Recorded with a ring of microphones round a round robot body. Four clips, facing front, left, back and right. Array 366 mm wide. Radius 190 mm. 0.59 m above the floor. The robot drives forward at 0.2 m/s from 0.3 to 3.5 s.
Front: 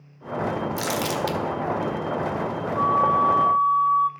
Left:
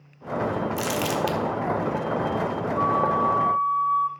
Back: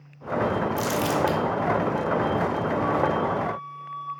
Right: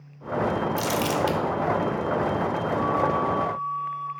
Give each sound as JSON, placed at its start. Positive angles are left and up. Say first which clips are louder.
{"t": 0.8, "sound": "crumpling", "louder": "right 1 dB, back 2 dB", "azimuth_deg": 35, "distance_m": 1.3}
{"t": 2.8, "sound": "a flute", "louder": "left 3 dB, front 6 dB", "azimuth_deg": 40, "distance_m": 1.8}